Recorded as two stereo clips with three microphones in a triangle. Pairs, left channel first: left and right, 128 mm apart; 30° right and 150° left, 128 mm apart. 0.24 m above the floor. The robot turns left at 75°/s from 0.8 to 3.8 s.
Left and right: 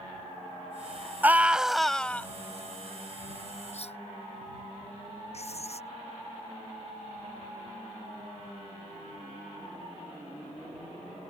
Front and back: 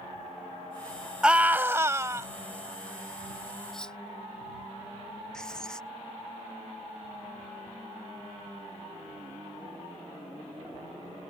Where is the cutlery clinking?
60° left; by 4.0 s 55° left.